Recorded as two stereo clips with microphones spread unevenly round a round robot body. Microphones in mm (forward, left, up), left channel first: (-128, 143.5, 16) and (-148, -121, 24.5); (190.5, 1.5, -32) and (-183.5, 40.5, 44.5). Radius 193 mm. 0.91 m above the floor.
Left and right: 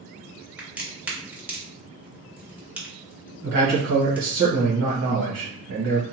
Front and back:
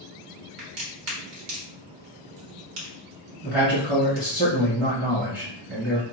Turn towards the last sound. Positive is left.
turn(degrees=-110)